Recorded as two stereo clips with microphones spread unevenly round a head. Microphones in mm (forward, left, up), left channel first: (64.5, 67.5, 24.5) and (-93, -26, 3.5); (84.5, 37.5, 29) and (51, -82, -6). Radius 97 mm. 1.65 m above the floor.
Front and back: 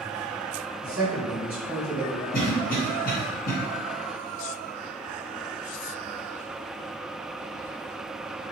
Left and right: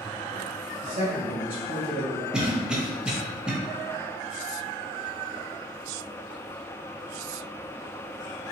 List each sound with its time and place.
0.8 s a man speaking: 65° right, 1.5 m
2.3 s a cough: 20° right, 1.0 m